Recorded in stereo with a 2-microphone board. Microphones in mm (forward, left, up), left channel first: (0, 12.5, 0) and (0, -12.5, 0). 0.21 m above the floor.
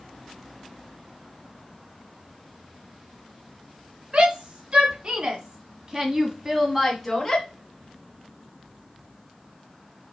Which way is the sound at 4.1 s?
55° right (ahead or behind).